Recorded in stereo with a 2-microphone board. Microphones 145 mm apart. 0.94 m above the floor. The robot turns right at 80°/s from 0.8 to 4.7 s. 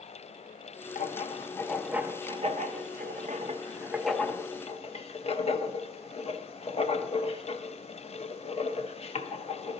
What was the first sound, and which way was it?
Writing, 65° left (ahead or behind).